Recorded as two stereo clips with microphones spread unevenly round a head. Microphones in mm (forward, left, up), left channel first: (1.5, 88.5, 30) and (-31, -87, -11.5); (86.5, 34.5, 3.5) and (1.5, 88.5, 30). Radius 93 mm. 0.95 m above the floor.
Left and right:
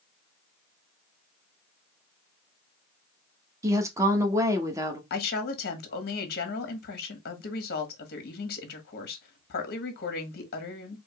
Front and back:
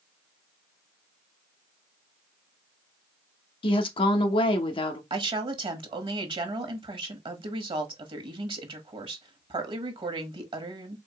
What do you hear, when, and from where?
3.6 s a woman speaking: 35° right, 1.0 m
5.1 s a woman speaking: 115° left, 1.3 m